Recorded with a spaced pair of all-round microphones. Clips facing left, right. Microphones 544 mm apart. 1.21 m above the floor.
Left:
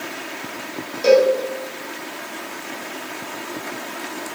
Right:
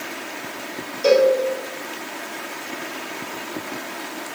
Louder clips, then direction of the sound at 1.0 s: Left 1 dB; 45° left (ahead or behind).